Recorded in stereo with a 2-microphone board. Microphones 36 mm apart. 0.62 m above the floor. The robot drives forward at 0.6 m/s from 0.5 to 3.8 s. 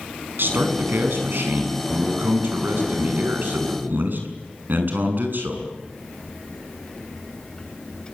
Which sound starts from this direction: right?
A man speaking, at 0.4 s.